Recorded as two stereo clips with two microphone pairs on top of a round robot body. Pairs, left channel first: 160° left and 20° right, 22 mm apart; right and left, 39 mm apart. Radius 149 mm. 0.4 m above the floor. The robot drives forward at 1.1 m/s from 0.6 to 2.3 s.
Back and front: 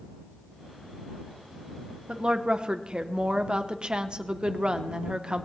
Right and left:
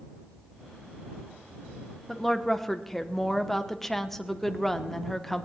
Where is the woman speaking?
5° left, 1.2 m.